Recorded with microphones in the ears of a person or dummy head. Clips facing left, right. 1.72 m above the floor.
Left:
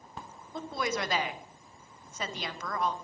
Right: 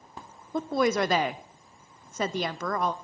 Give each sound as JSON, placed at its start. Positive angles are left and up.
{"t": 0.5, "sound": "a woman speaking", "side_deg": -55, "distance_m": 0.6}